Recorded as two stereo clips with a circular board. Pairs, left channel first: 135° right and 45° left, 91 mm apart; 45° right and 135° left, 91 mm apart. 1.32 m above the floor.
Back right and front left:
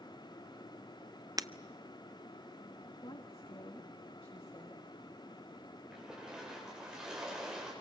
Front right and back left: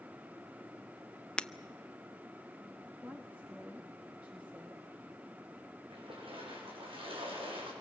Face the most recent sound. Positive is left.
turn(degrees=125)